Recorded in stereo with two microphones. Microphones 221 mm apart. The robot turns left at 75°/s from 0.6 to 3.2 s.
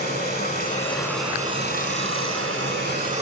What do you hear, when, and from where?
0.0 s running water: 45° left, 1.8 m; by 3.2 s 150° right, 1.8 m